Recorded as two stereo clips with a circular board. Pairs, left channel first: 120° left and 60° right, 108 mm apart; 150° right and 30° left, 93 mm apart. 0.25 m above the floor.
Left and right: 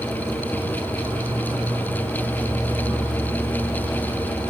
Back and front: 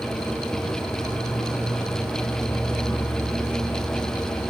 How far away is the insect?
About 1.2 m.